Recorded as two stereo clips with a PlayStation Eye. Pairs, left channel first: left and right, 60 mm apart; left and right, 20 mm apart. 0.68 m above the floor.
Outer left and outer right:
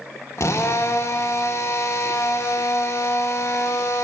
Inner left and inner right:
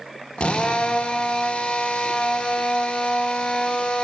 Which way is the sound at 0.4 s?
50° left (ahead or behind).